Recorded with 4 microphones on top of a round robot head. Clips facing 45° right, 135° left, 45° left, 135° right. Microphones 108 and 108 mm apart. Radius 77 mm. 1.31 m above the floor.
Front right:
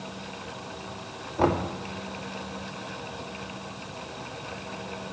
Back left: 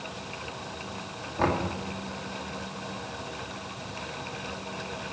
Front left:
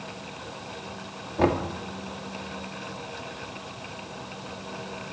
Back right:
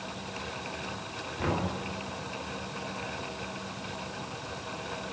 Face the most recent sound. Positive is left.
turn(degrees=35)